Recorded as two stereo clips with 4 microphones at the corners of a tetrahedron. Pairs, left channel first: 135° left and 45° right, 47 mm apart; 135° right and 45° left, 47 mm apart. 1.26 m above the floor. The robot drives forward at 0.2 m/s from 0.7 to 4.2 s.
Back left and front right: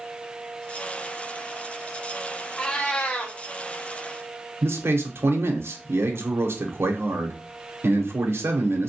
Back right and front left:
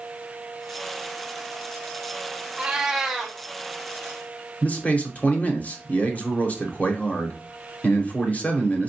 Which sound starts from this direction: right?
A man speaking, at 4.6 s.